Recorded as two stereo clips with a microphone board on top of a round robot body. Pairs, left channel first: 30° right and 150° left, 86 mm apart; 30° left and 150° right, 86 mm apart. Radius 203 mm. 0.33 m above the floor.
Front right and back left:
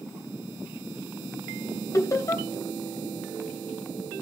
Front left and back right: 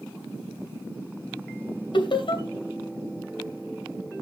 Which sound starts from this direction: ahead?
Laughter, at 1.9 s.